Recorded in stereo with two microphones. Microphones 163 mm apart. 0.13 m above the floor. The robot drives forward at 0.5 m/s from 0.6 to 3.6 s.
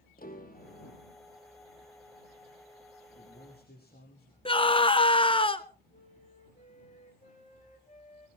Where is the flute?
45° left (ahead or behind), 3 m.